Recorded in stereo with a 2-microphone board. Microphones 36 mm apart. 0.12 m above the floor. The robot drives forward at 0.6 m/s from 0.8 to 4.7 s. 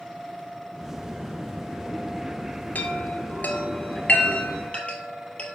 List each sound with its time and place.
2.8 s a chime: 55° left (ahead or behind), 1.0 m; by 5.6 s 35° left (ahead or behind), 1.3 m